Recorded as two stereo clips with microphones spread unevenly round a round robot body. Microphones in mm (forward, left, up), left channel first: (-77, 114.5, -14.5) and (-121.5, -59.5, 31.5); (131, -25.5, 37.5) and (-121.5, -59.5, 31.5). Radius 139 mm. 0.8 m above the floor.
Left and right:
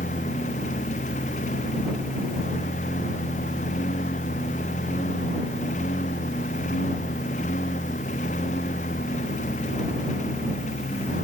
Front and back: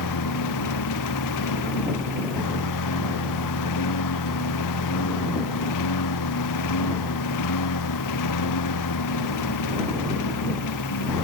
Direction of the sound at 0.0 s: 10° left.